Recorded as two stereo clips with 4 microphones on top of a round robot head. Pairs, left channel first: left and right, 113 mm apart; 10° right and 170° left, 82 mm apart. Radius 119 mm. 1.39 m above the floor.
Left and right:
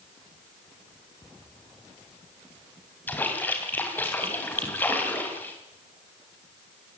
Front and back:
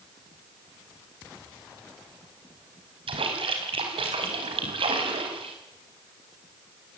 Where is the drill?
No drill in this recording.